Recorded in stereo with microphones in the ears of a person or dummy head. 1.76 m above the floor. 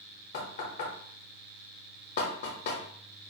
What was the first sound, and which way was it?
Knocking, 45° left (ahead or behind).